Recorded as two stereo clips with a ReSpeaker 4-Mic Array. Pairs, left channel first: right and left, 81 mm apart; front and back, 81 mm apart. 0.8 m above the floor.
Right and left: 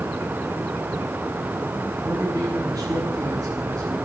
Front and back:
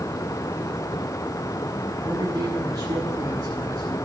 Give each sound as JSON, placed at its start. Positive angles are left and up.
{"t": 2.0, "sound": "a man speaking", "azimuth_deg": 140, "distance_m": 8.5}